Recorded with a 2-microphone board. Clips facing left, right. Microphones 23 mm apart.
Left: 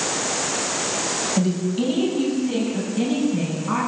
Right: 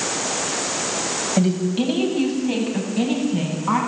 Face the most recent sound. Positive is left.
turn(degrees=-85)